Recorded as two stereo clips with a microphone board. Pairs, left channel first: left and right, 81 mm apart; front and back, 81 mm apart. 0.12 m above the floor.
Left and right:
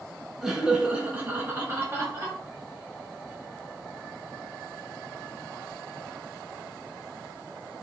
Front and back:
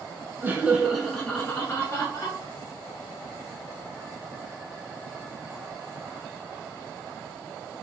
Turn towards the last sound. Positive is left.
turn(degrees=-35)